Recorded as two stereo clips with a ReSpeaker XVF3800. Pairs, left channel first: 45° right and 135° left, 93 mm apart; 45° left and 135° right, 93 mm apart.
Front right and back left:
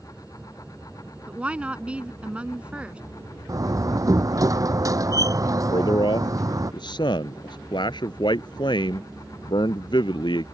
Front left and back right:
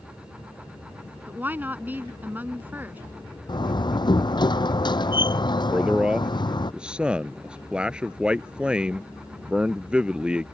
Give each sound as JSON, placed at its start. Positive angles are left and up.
{"t": 1.3, "sound": "a woman speaking", "azimuth_deg": -170}
{"t": 3.5, "sound": "a door slam", "azimuth_deg": 85}
{"t": 5.7, "sound": "a man speaking", "azimuth_deg": -55}